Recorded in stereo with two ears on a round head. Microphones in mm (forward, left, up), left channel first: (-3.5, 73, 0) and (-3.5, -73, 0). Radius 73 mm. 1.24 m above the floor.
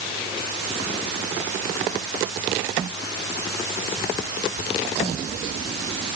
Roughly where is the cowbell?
No cowbell in this recording.